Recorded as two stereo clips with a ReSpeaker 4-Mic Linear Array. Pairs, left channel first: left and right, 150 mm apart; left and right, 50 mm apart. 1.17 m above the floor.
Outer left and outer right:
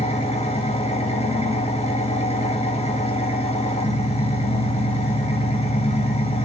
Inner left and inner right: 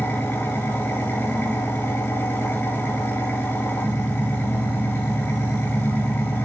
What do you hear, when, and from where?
0.0 s an engine running: 40° left (ahead or behind), 1.8 m